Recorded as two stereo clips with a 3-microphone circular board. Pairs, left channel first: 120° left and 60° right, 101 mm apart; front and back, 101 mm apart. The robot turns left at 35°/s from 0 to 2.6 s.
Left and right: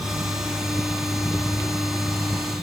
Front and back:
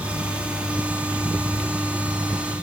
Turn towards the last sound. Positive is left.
No sound to turn to.